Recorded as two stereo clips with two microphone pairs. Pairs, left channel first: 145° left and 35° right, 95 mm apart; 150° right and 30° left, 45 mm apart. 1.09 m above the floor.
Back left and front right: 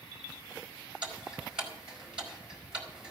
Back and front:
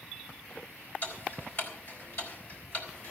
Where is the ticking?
115° right, 4 m.